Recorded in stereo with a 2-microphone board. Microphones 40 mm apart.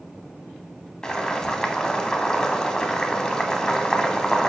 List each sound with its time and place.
1.0 s boiling: 15° left (ahead or behind), 0.5 m